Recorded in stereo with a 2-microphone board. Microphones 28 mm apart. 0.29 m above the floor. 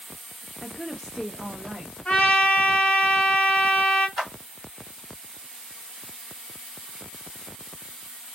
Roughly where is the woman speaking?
Left.